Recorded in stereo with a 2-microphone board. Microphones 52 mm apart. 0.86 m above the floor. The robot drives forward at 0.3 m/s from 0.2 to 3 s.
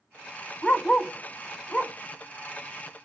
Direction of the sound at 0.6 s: 15° left (ahead or behind).